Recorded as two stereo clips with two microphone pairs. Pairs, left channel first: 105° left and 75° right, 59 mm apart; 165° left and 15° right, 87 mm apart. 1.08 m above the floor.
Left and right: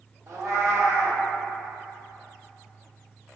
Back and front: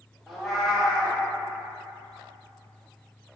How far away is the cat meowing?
About 0.6 m.